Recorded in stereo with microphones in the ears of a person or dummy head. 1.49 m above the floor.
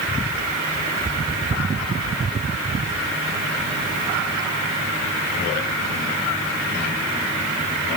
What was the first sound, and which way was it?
Only background noise.